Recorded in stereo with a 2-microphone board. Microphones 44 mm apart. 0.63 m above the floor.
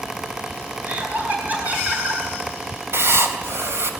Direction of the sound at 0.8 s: 40° right (ahead or behind).